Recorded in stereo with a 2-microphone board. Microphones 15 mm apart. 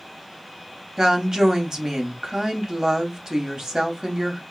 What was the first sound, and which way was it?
A woman speaking, 45° right (ahead or behind).